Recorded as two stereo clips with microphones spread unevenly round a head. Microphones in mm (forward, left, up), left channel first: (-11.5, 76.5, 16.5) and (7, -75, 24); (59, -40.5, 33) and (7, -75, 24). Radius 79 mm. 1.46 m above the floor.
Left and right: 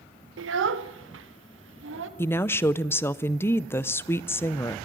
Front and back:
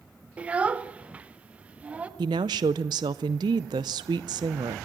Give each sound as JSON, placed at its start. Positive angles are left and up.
{"t": 0.4, "sound": "a child speaking", "azimuth_deg": -75, "distance_m": 1.2}
{"t": 2.2, "sound": "a woman speaking", "azimuth_deg": 175, "distance_m": 0.5}